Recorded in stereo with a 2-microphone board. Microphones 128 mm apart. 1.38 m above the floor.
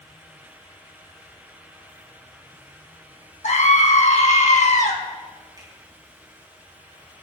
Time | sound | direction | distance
3.4 | a scream | 70° left (ahead or behind) | 2.5 m
5.6 | a finger snap | 35° right (ahead or behind) | 5 m